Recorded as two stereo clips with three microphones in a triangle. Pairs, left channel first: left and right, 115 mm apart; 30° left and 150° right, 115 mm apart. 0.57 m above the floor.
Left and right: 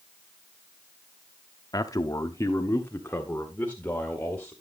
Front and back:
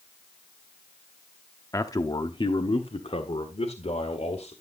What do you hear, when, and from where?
1.7 s a man speaking: 70° left, 0.8 m; by 4.5 s 10° left, 1.8 m